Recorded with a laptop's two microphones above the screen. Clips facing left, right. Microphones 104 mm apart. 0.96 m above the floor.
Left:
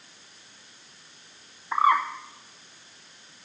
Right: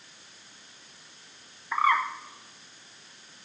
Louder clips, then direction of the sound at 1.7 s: Left 3 dB; 20° left (ahead or behind).